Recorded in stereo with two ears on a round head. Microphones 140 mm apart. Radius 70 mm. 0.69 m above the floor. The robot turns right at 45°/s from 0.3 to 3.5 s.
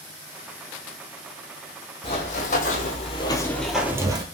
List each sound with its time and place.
2.0 s running footsteps: 40° left (ahead or behind), 1.4 m; by 4.2 s 30° right (ahead or behind), 0.8 m